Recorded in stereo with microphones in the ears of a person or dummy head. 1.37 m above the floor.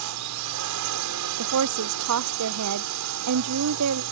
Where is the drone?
70° right (ahead or behind).